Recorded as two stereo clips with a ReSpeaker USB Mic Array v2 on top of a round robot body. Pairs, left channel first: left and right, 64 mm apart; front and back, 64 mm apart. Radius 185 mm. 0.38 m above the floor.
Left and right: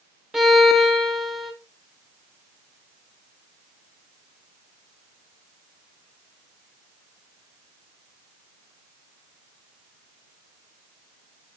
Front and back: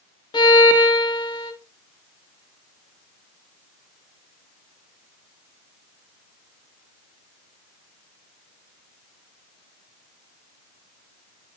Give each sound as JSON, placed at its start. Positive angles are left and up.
{"t": 0.3, "sound": "a violin", "azimuth_deg": -5, "distance_m": 0.6}